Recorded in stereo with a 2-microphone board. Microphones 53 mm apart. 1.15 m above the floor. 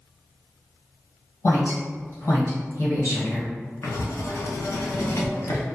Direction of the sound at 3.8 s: 70° left (ahead or behind).